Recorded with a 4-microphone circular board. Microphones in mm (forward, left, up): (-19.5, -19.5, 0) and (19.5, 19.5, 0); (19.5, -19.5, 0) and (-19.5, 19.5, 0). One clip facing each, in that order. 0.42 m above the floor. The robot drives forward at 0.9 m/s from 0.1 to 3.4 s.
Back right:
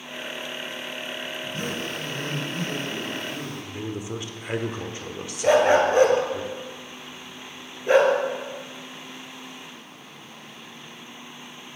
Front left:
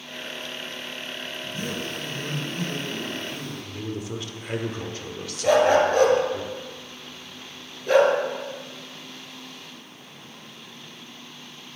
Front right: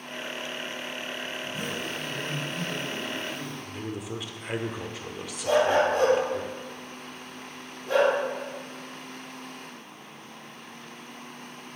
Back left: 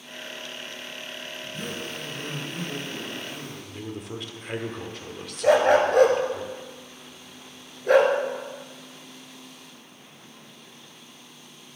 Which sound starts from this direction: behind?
A dog barking, at 5.4 s.